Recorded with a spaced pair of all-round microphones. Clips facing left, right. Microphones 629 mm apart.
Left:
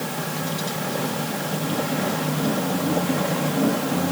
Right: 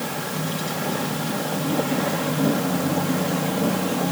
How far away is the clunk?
No clunk in this recording.